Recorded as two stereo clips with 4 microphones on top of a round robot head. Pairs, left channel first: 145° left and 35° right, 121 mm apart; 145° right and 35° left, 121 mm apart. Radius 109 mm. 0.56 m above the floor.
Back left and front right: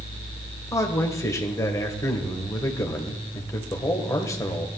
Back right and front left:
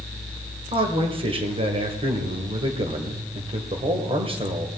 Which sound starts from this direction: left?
A man speaking, at 0.7 s.